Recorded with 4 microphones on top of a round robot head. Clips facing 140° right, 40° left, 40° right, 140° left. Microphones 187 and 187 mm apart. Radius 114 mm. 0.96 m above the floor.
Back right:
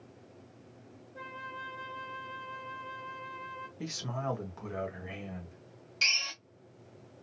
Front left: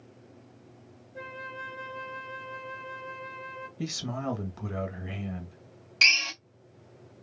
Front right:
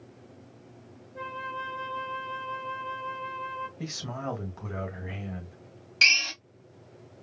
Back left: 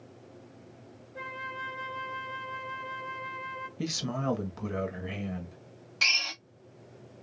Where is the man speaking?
90° left, 1.9 m.